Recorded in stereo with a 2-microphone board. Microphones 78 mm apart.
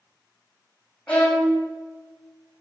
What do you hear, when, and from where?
1.1 s a violin: 15° left (ahead or behind), 0.9 m